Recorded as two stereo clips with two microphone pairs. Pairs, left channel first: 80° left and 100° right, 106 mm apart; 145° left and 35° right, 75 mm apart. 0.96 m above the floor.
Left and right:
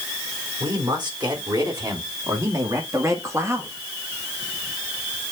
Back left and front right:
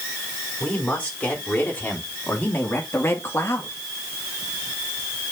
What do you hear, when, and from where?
0.6 s a man speaking: 145° right, 4 m; by 3.8 s 170° right, 1.8 m